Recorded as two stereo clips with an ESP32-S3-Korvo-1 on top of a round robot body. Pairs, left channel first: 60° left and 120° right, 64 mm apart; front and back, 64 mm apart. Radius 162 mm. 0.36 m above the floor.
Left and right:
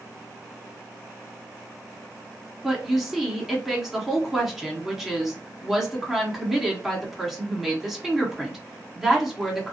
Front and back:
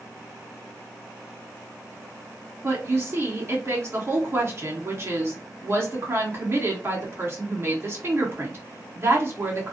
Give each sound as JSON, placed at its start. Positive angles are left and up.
{"t": 2.6, "sound": "a woman speaking", "azimuth_deg": 155, "distance_m": 1.9}